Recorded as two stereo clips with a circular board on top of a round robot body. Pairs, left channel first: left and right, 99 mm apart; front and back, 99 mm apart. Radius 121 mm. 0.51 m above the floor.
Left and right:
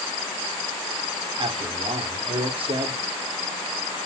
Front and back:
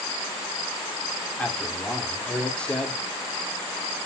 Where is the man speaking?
80° right, 2 m.